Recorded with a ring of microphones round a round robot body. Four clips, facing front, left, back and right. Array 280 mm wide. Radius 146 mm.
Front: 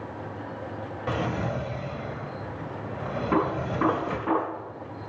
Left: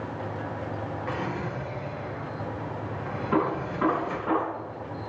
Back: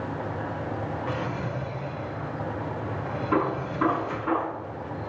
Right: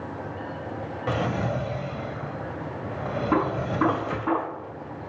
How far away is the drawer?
About 0.8 m.